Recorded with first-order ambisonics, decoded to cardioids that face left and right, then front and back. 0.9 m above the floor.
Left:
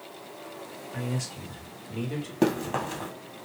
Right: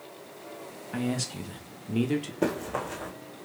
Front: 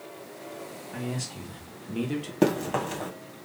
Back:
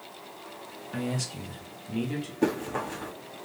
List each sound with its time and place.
0.9 s a man speaking: 110° right, 1.3 m; by 2.3 s 70° right, 1.0 m
2.4 s running footsteps: 35° left, 1.6 m